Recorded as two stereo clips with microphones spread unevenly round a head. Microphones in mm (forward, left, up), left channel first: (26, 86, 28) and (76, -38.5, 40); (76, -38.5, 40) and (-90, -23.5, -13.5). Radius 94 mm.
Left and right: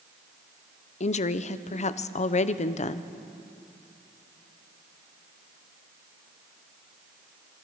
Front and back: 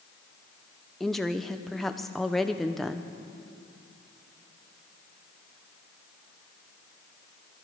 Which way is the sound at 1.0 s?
75° left.